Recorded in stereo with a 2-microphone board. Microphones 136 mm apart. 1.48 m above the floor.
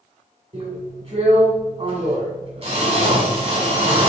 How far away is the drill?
About 3 m.